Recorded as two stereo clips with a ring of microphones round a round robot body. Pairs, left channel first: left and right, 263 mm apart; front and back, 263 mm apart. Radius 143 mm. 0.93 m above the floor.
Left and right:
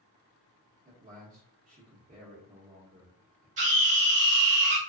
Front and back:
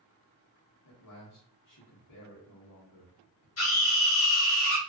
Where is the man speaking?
30° right, 0.9 m.